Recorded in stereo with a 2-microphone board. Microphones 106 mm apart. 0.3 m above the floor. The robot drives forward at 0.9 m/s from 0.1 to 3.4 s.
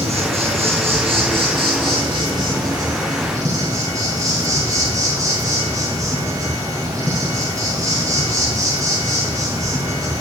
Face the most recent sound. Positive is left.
turn(degrees=-35)  # may be behind; listen again after turning